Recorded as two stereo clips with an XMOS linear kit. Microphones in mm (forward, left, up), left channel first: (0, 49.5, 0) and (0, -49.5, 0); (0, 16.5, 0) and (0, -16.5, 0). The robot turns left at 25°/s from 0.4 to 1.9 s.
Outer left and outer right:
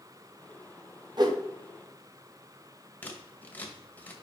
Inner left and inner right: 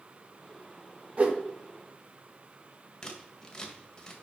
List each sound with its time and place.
1.2 s a whoosh: 45° right (ahead or behind), 1.2 m
3.0 s scissors: 15° left (ahead or behind), 1.4 m